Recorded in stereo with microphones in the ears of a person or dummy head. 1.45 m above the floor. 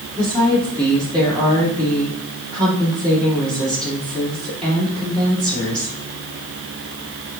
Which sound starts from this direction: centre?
A woman speaking, at 0.2 s.